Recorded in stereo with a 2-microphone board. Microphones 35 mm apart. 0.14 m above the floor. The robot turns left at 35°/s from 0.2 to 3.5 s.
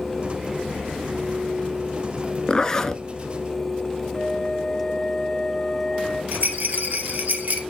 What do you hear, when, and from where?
2.5 s a zipper: 25° left (ahead or behind), 0.7 m; by 3.0 s 10° left (ahead or behind), 0.7 m
4.1 s a flute: 30° left (ahead or behind), 4 m
6.3 s a rattle: 50° right (ahead or behind), 1.9 m